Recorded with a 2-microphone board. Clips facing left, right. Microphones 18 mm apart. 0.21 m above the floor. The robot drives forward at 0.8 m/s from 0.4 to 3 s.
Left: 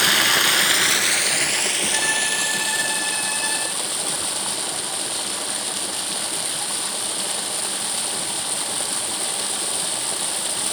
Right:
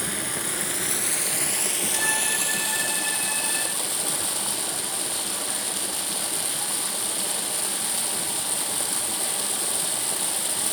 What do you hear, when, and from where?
0.0 s running water: 70° left (ahead or behind), 0.8 m; by 10.7 s 20° left (ahead or behind), 2.5 m
1.9 s a violin: 30° left (ahead or behind), 5 m; by 3.7 s 40° left (ahead or behind), 4.5 m